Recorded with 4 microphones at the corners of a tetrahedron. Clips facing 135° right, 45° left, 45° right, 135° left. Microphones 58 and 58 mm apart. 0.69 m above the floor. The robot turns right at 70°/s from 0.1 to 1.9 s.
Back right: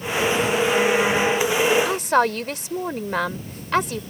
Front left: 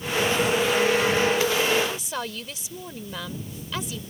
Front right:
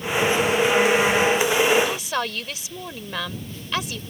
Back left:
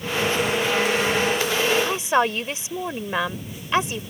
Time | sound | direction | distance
1.9 | a woman speaking | 165° right | ?